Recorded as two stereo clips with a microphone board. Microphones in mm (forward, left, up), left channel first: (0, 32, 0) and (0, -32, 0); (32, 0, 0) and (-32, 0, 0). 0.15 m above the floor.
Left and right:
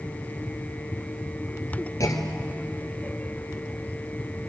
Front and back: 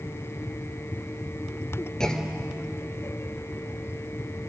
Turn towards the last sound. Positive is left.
turn(degrees=80)